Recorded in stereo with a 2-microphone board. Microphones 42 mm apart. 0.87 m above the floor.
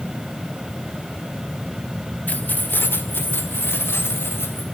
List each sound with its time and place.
2.3 s keys jangling: 40° left (ahead or behind), 1.4 m; by 4.6 s 80° left, 3.5 m